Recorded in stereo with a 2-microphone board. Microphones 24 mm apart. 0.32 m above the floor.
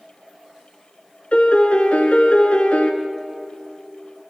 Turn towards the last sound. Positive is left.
turn(degrees=70)  # may be behind; listen again after turning